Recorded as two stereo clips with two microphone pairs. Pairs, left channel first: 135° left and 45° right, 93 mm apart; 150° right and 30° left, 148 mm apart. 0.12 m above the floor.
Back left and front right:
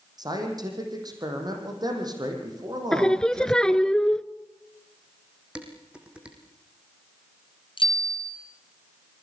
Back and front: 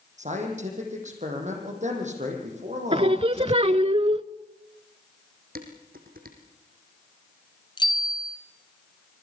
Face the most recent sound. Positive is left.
turn(degrees=155)